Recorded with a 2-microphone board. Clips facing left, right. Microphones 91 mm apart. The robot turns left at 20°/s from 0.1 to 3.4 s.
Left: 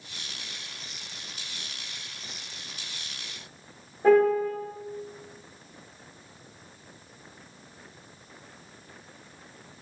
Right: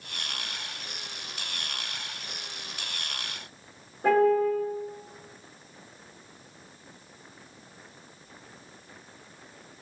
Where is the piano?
65° right (ahead or behind), 1.9 m.